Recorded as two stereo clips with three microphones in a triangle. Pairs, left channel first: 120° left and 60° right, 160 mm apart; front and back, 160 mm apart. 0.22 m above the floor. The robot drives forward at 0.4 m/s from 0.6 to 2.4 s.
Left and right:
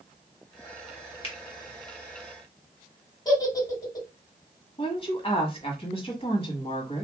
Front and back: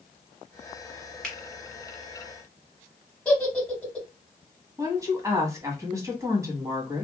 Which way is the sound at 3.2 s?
75° left.